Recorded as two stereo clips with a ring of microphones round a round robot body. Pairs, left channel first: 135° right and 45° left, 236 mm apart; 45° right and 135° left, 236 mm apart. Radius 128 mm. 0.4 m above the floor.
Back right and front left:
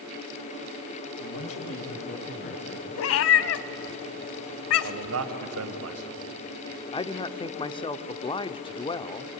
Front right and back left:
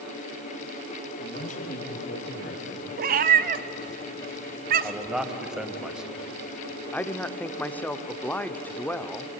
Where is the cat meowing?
170° right, 0.8 m.